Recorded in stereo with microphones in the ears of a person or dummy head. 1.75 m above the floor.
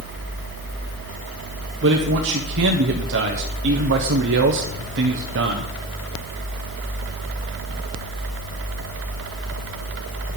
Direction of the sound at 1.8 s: 60° right (ahead or behind).